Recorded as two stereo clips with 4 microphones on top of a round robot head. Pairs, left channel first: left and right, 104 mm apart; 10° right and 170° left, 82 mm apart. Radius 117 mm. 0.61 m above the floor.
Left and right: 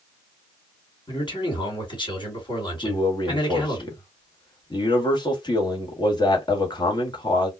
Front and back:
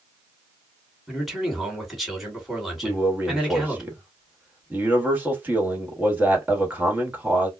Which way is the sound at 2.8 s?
105° left.